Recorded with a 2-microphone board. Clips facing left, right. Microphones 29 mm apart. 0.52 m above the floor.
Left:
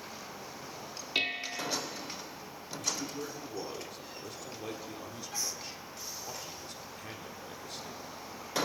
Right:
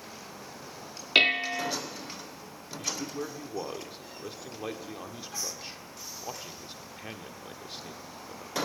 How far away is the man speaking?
About 1.6 m.